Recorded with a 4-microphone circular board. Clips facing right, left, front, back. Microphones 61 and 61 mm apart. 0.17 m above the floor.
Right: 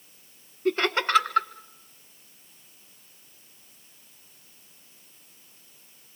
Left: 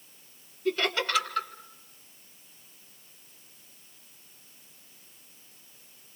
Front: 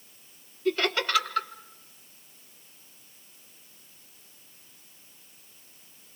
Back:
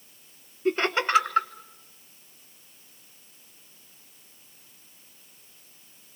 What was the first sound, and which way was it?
Laughter, 125° right.